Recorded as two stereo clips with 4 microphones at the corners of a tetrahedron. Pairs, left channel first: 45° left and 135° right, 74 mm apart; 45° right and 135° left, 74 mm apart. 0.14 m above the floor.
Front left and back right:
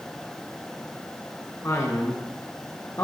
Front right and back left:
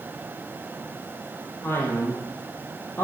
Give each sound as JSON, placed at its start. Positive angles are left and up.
{"t": 1.6, "sound": "a man speaking", "azimuth_deg": 5, "distance_m": 4.0}